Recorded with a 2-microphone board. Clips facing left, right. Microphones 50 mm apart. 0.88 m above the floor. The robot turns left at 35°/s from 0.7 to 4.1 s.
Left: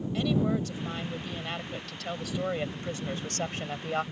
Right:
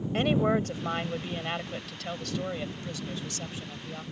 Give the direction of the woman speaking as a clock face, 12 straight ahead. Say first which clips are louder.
Right 3 dB; 4 o'clock.